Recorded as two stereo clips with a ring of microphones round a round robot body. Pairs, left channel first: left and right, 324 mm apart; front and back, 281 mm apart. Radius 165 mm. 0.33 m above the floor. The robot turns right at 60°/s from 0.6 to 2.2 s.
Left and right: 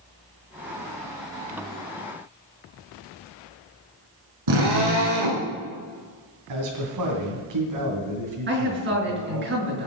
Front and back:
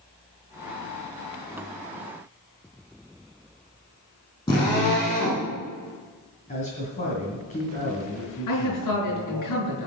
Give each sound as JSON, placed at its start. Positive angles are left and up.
{"t": 4.5, "sound": "a drill", "azimuth_deg": -75, "distance_m": 9.5}
{"t": 6.5, "sound": "a man speaking", "azimuth_deg": -65, "distance_m": 3.0}
{"t": 8.5, "sound": "a man speaking", "azimuth_deg": -35, "distance_m": 6.0}